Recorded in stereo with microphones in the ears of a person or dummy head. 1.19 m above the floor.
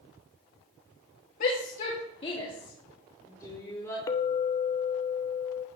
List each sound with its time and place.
1.4 s a shout: 55° left (ahead or behind), 2.5 m; by 4.0 s 15° left (ahead or behind), 5 m
4.1 s a clink: 30° left (ahead or behind), 0.9 m